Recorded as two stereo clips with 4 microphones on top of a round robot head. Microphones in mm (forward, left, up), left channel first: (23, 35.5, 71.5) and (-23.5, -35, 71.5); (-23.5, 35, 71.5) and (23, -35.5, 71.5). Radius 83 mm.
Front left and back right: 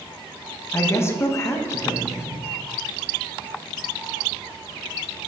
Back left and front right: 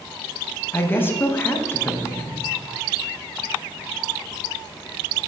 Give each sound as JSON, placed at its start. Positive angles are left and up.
{"t": 0.7, "sound": "a woman speaking", "azimuth_deg": 80, "distance_m": 1.1}